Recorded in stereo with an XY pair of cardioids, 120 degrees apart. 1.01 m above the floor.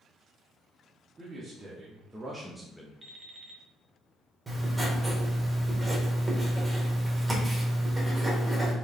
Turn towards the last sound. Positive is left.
turn(degrees=-15)